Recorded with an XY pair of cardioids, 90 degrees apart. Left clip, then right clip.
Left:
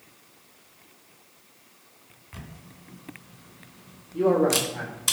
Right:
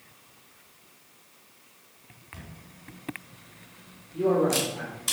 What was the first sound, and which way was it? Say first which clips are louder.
A camera shutter: left 2 dB; 50° left.